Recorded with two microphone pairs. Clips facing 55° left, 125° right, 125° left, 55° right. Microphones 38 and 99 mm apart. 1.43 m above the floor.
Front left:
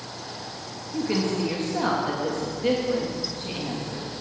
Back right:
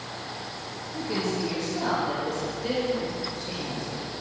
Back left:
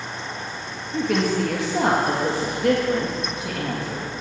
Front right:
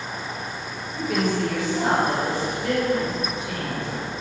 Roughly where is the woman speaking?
Left.